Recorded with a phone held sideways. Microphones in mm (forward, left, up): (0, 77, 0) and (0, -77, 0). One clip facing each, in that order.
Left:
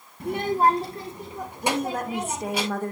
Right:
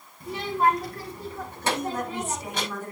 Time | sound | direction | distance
0.2 | a child speaking | 70° left (ahead or behind) | 0.7 m
1.6 | a woman speaking | 60° left (ahead or behind) | 1.9 m